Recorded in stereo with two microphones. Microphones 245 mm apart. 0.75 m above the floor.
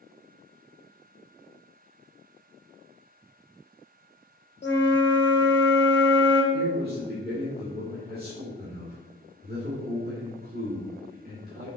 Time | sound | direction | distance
4.6 | a flute | 45° left (ahead or behind) | 0.8 m
6.5 | a man speaking | 40° right (ahead or behind) | 1.8 m